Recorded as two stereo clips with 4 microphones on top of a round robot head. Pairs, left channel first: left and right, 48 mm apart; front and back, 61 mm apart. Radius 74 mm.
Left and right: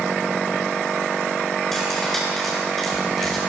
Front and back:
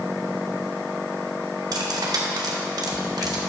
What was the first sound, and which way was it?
Cutlery clinking, 175° left.